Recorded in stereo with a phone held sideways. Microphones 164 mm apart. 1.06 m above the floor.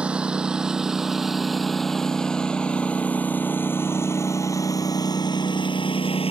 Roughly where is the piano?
No piano in this recording.